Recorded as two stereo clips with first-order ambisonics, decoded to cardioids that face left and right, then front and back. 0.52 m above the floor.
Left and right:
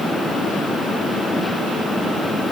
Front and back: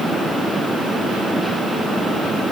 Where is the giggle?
No giggle in this recording.